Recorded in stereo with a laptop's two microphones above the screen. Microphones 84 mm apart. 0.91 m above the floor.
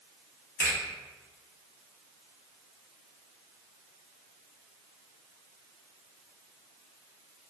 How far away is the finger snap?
About 1.6 m.